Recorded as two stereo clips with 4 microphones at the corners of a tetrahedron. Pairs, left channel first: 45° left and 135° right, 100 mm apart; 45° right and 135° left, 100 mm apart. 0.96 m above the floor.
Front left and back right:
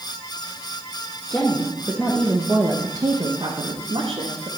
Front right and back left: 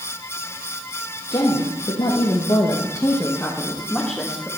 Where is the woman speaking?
25° right, 1.2 m; by 4.5 s 140° right, 1.4 m.